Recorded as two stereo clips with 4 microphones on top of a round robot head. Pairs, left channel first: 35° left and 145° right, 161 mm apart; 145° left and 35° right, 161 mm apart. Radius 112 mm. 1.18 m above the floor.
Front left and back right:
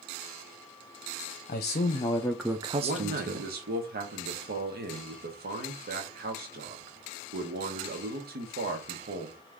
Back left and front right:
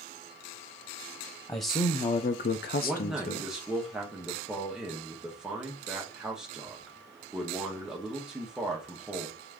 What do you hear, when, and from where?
1.5 s a man speaking: 70° left, 0.8 m; by 3.5 s 170° right, 0.9 m
2.8 s a man speaking: 120° right, 1.2 m